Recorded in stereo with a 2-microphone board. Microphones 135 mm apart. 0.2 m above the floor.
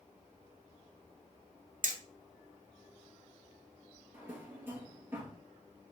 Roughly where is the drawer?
Centre.